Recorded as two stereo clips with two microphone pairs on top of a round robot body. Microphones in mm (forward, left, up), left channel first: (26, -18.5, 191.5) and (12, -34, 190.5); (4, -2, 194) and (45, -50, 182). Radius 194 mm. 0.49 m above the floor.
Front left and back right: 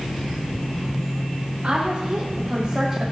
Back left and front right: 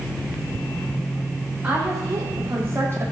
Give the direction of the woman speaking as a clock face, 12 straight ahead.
3 o'clock.